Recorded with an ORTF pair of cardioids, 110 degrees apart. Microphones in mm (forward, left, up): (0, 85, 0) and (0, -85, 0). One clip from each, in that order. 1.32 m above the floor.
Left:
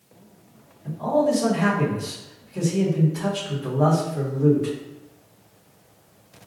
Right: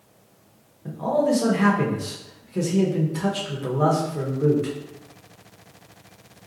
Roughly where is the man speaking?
Ahead right.